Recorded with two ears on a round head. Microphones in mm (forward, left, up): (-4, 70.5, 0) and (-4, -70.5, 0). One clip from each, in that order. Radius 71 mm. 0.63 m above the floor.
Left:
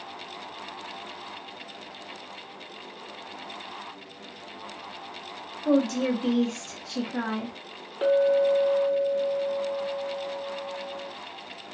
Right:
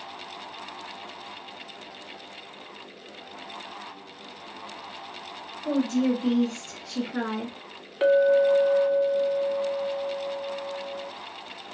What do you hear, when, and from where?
5.7 s a woman speaking: 40° left (ahead or behind), 1.3 m; by 7.6 s 20° right (ahead or behind), 1.0 m
8.0 s a clink: 40° right (ahead or behind), 0.7 m